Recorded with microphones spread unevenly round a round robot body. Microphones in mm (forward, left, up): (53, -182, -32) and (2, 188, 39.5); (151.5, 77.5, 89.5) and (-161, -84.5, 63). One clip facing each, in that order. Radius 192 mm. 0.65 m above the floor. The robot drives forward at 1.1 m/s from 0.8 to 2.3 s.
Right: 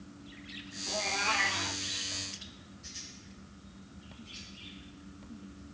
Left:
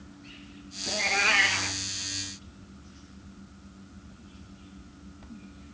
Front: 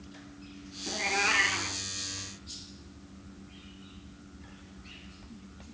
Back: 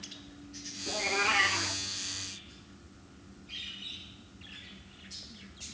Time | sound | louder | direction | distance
0.9 | a cat meowing | left 5 dB, back 1 dB | 100° left | 2 m